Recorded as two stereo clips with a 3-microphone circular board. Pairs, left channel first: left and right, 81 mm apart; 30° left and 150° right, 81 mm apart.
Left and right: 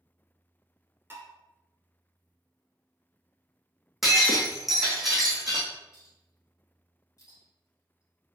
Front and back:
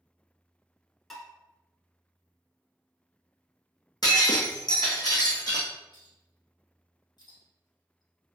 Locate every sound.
1.1 s dishes clattering: 55° right, 1.1 m
4.0 s breaking glass: 5° right, 1.9 m
5.9 s a clink: 45° left, 1.8 m